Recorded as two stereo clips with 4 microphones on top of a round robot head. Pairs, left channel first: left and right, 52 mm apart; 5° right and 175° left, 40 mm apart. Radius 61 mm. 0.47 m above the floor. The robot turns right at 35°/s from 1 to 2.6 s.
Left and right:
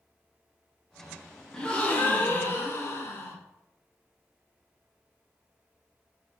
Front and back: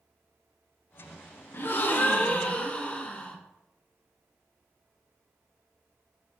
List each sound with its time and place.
1.5 s a gasp: 10° left, 0.7 m; by 3.4 s 50° left, 0.7 m